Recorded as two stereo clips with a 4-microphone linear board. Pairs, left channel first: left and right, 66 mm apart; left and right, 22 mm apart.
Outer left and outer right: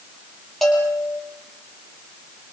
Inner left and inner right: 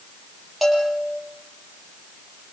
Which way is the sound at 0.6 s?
5° left (ahead or behind).